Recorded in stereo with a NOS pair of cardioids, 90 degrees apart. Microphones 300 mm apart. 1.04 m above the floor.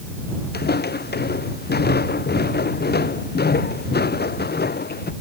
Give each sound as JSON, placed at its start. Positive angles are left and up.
{"t": 0.5, "sound": "footsteps", "azimuth_deg": 35}